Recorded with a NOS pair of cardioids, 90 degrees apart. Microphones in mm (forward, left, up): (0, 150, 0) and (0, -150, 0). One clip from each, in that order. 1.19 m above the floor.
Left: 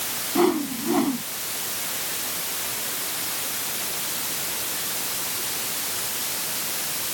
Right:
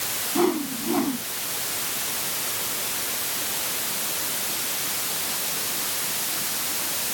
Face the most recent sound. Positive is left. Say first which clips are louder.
# left 2 dB
turn(degrees=20)